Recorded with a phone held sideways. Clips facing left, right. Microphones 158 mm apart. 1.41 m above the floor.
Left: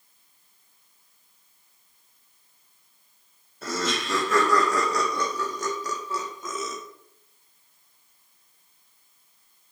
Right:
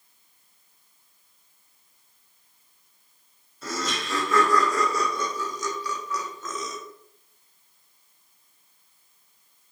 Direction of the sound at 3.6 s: 70° left (ahead or behind).